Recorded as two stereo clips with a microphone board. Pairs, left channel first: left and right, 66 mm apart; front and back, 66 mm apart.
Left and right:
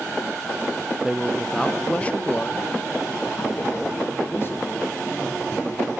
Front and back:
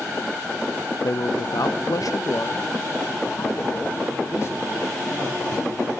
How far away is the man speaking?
About 0.6 m.